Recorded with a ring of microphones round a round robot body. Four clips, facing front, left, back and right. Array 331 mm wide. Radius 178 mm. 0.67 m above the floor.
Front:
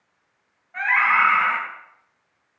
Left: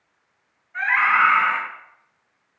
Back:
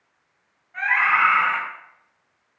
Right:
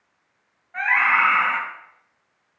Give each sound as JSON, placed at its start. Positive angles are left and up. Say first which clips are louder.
{"t": 0.7, "sound": "a scream", "louder": "left 1 dB, front 1 dB", "azimuth_deg": -55, "distance_m": 5.0}